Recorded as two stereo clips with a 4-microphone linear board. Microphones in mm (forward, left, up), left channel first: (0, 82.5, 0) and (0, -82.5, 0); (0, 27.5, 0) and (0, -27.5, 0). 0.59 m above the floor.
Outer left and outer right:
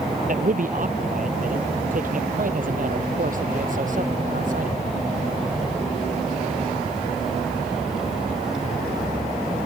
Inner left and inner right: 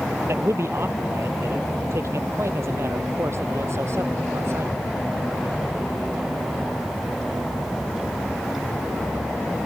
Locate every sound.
0.3 s a man speaking: 55° right (ahead or behind)